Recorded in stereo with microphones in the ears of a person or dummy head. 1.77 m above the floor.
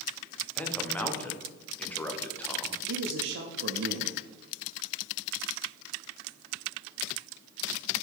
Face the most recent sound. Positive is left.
turn(degrees=-60)  # may be behind; listen again after turning